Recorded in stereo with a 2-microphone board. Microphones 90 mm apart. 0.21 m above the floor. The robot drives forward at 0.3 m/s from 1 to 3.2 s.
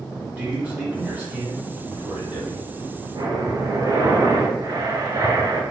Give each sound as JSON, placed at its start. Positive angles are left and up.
{"t": 0.4, "sound": "a man speaking", "side_deg": -15, "distance_m": 1.8}
{"t": 3.1, "sound": "breathing", "side_deg": -40, "distance_m": 0.7}